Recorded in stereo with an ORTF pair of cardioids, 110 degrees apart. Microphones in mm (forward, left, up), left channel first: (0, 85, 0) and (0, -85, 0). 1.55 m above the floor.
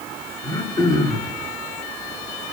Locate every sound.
0.4 s throat clearing: 25° left, 7 m